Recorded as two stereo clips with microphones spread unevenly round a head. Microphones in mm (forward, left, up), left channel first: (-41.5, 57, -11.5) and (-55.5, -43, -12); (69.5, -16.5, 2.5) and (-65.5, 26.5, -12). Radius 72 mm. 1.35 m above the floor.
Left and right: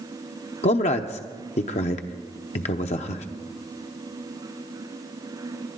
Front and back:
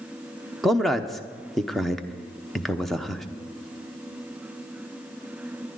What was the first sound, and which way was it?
A man speaking, 75° left.